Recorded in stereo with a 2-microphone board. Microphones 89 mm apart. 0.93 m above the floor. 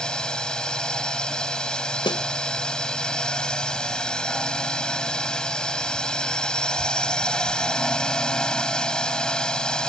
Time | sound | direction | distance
0.0 | a drone | 10° left (ahead or behind) | ?
2.0 | a snare drum | 65° left (ahead or behind) | ?